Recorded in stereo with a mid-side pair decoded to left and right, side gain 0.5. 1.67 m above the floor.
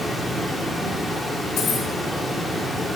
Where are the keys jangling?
70° left, 2 m.